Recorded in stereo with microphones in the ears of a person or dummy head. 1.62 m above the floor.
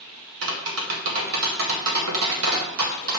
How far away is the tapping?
About 2 m.